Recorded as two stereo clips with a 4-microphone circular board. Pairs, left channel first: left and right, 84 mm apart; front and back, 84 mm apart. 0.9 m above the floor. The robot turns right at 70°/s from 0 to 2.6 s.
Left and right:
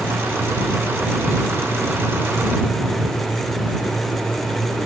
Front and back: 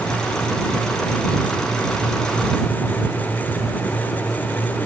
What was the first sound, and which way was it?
Only background noise.